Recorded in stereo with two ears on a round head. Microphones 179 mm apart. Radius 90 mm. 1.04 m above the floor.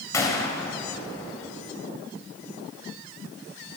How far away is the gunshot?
About 3 m.